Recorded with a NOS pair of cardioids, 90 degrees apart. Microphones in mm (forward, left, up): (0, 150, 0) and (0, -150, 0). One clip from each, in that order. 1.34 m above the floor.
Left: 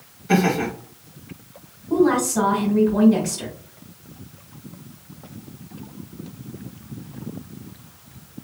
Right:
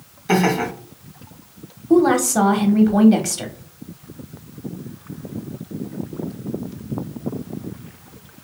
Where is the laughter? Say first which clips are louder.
Right 2 dB; 65° right, 2.0 m.